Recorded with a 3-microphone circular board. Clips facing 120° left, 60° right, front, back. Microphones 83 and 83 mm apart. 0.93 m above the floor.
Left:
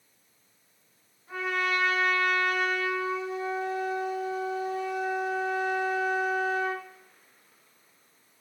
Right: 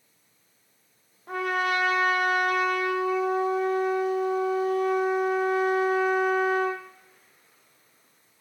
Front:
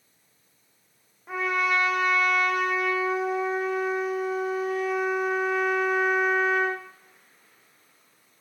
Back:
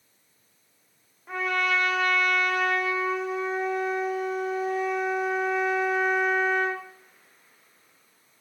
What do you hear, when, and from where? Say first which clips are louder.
1.3 s a trumpet: right 3 dB, front 1 dB; 85° right, 1.0 m